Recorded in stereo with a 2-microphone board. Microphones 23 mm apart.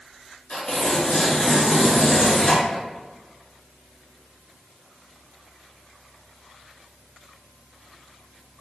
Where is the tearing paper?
40° left (ahead or behind), 1.3 m.